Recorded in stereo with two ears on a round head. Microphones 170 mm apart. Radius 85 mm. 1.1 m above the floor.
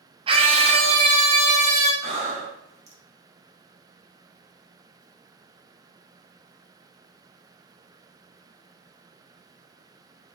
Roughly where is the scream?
Right.